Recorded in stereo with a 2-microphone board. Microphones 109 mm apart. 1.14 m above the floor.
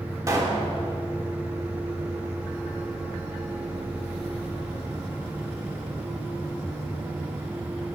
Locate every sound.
0.3 s a pop: 25° right (ahead or behind), 1.1 m